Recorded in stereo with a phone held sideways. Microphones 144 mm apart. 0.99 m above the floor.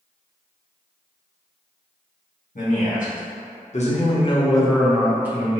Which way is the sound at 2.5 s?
70° left (ahead or behind).